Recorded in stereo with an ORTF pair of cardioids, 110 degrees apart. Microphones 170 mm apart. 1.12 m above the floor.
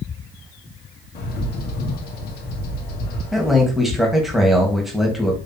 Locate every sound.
1.1 s a bird: 65° left, 0.9 m
3.3 s a man speaking: straight ahead, 1.5 m